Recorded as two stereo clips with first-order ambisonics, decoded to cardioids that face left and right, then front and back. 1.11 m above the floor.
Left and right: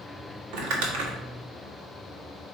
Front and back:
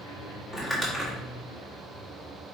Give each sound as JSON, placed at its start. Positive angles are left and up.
{"t": 0.5, "sound": "crumpling", "azimuth_deg": -85, "distance_m": 1.9}